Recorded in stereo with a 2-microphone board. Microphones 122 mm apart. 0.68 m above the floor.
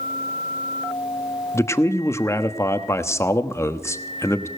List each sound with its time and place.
1.5 s a man speaking: 25° left (ahead or behind), 1.0 m